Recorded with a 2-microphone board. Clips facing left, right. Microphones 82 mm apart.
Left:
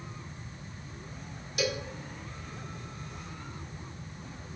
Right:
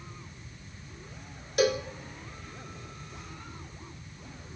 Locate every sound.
1.6 s a cowbell: 45° right (ahead or behind), 1.1 m